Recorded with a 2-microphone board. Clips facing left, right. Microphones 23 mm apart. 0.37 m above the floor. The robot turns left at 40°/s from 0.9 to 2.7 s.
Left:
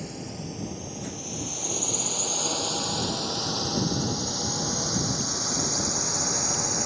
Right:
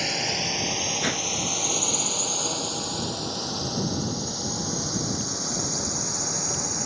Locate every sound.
0.0 s a drone: 65° right (ahead or behind); by 6.9 s 5° left (ahead or behind)
1.0 s a whoosh: 80° right; by 1.3 s 65° right (ahead or behind)